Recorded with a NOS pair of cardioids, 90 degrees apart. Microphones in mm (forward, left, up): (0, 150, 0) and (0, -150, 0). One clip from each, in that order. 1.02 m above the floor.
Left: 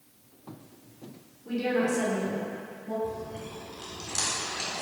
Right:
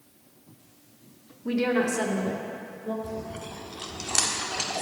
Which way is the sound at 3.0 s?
55° right.